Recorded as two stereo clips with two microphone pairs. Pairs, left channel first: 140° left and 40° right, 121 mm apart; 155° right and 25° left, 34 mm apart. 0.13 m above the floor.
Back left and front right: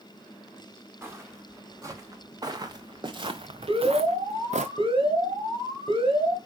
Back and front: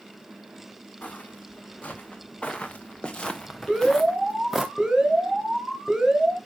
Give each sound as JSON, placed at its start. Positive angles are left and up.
{"t": 1.0, "sound": "footsteps", "azimuth_deg": -110, "distance_m": 2.5}
{"t": 3.7, "sound": "an alarm", "azimuth_deg": -35, "distance_m": 2.5}